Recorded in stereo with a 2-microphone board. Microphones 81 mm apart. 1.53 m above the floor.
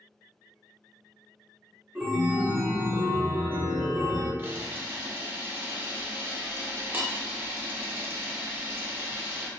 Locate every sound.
1.9 s a chime: 20° right (ahead or behind), 0.6 m
4.4 s a camera shutter: 25° right (ahead or behind), 0.7 m